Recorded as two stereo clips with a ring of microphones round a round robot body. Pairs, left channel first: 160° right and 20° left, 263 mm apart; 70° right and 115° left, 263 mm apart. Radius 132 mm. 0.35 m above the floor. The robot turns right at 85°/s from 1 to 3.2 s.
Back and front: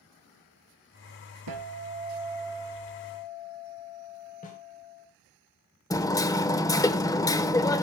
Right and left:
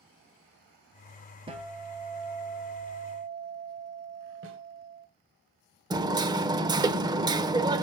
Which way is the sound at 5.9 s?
155° left.